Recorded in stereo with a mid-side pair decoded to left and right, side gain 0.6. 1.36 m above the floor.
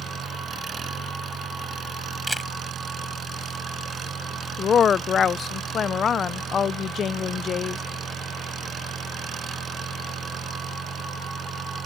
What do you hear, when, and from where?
0.0 s an engine running: 30° right
2.3 s a camera shutter: 5° left
4.6 s a woman speaking: 45° left